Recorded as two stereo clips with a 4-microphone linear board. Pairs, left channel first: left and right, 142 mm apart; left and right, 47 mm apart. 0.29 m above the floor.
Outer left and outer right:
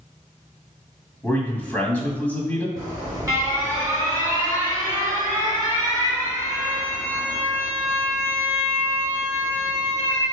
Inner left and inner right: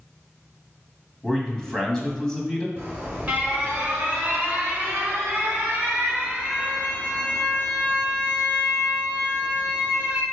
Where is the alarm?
25° right (ahead or behind), 2.5 m.